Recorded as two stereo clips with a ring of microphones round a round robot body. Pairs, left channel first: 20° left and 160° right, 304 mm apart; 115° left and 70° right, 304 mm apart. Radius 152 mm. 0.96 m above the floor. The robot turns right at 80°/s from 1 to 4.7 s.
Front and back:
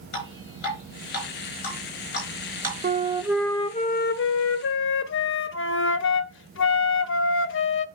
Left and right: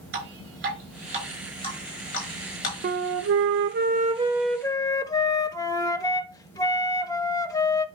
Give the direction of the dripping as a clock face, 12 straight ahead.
12 o'clock.